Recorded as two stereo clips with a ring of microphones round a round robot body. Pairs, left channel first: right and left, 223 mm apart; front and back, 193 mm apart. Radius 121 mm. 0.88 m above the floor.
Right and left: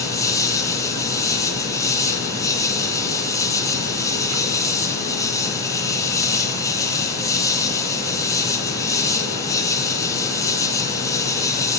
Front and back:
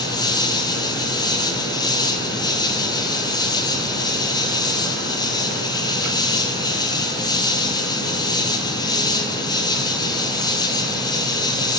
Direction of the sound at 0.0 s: 35° right.